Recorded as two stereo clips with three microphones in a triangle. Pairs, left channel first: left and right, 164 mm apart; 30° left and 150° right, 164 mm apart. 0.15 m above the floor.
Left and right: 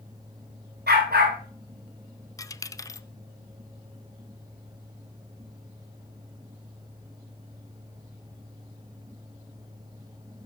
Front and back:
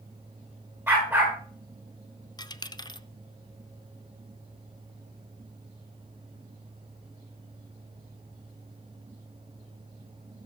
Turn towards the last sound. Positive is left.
turn(degrees=50)